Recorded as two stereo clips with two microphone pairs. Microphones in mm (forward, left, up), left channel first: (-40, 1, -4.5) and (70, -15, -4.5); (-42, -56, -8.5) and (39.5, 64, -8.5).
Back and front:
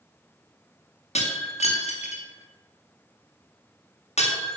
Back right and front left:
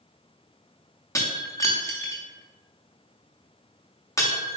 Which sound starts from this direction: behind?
Breaking glass, at 1.1 s.